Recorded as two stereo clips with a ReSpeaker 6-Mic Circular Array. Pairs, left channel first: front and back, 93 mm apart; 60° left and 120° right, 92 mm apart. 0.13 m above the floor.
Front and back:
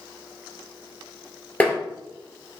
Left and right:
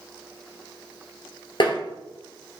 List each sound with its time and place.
1.6 s tapping: 70° left, 1.2 m